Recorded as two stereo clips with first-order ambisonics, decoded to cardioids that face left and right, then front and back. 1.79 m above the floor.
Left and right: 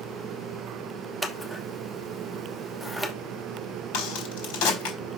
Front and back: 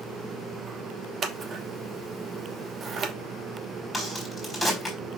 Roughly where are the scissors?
Behind.